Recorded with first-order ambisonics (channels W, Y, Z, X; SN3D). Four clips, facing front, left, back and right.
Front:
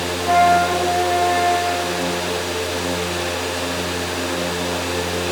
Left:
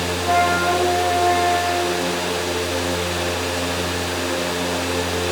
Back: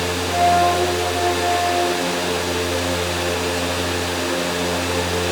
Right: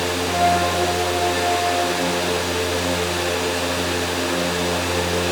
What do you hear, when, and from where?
0.2 s a flute: 35° left, 3.5 m